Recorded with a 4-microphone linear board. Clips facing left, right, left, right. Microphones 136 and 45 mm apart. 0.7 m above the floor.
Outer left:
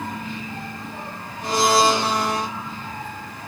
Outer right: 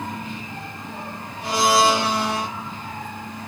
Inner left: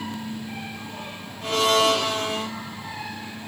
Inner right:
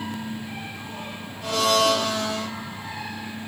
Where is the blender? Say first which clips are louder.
Even, inner left 1 dB; 45° left (ahead or behind), 5 m.